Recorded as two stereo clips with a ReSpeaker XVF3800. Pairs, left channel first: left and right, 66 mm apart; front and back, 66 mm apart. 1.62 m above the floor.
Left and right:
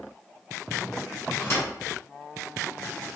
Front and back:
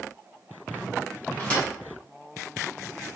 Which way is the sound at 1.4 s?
65° left.